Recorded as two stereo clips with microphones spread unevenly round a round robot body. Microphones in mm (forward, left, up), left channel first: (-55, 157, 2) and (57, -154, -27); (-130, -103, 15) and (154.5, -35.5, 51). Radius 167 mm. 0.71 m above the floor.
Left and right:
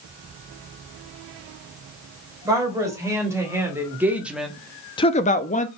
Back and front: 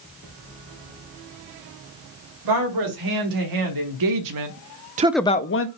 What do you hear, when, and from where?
2.5 s a woman speaking: 10° left, 3 m; by 5.7 s straight behind, 0.8 m